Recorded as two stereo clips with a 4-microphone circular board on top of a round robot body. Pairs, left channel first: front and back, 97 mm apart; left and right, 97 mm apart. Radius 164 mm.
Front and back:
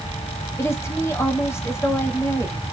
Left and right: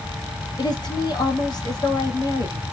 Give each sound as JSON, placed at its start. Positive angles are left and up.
{"t": 0.6, "sound": "a woman speaking", "azimuth_deg": 60, "distance_m": 1.7}